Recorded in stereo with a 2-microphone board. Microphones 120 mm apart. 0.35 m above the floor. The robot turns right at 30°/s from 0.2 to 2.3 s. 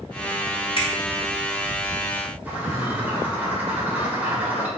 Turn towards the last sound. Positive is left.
turn(degrees=-15)  # may be behind; listen again after turning